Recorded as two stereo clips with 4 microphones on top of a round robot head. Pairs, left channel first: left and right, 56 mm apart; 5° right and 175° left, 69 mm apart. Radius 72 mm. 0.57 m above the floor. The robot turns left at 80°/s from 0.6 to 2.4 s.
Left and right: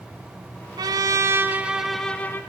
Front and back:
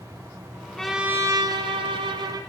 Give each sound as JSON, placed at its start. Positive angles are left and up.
{"t": 0.8, "sound": "a trumpet", "azimuth_deg": -90, "distance_m": 1.1}